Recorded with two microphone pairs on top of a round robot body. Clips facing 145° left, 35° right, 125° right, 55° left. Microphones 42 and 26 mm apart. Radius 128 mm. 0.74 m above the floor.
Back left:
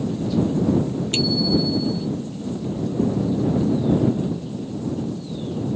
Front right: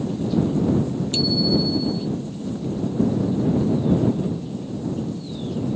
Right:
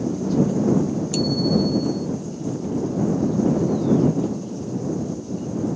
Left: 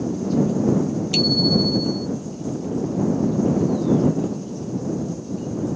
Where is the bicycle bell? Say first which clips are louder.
Even, left 3 dB; 100° left.